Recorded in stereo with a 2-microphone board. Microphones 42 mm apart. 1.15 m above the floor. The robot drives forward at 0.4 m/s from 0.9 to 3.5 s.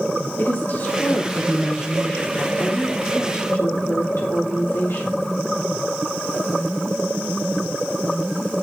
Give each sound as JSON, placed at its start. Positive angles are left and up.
{"t": 0.4, "sound": "a woman speaking", "side_deg": 60, "distance_m": 4.0}